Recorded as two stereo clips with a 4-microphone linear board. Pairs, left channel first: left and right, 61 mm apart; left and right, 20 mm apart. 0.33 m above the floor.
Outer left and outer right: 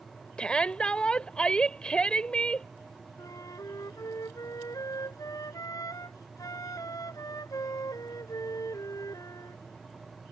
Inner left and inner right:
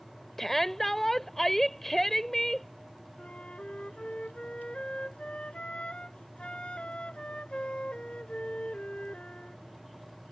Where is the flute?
75° left (ahead or behind).